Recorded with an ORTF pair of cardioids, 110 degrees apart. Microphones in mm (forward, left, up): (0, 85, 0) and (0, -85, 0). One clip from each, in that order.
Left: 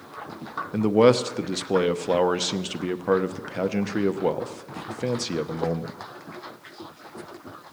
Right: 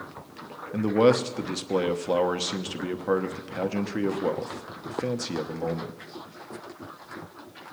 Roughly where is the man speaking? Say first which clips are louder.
Left 3 dB; ahead.